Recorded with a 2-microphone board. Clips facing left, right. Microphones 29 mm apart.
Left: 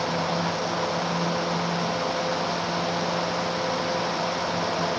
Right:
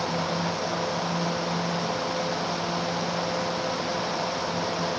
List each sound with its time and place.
Only background noise.